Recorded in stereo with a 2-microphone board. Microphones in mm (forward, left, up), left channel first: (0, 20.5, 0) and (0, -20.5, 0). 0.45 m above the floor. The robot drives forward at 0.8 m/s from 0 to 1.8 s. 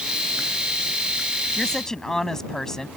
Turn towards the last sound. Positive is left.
turn(degrees=10)  # may be behind; listen again after turning